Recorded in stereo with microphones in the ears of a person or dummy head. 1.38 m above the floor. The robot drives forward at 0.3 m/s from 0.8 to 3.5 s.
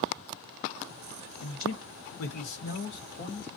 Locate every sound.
1.4 s a man speaking: 85° left, 0.8 m; by 3.5 s 50° left (ahead or behind), 1.0 m